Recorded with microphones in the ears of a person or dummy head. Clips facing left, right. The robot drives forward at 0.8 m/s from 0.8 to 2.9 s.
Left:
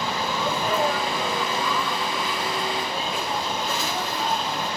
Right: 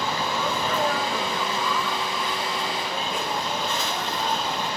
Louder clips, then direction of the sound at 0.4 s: Left 3 dB; 5° left (ahead or behind).